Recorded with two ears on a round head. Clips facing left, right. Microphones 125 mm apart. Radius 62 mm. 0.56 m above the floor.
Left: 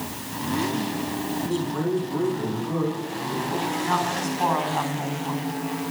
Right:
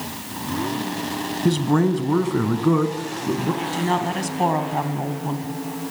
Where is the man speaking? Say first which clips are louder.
Right 9 dB; 80° right, 4.5 m.